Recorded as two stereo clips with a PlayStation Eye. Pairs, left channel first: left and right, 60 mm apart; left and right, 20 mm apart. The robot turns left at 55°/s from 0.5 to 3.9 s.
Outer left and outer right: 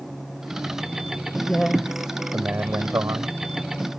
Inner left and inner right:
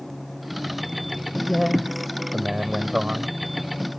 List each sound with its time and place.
1.4 s a man speaking: 20° left; by 3.9 s 115° right